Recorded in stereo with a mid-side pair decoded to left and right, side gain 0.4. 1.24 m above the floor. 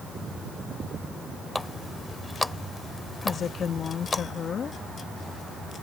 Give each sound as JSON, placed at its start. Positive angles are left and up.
{"t": 1.6, "sound": "a running tap", "azimuth_deg": 15}
{"t": 3.2, "sound": "a woman speaking", "azimuth_deg": 55}